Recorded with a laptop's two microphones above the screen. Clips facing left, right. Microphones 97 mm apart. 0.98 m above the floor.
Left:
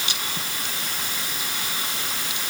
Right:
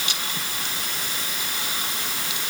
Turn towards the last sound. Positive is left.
No sound to turn to.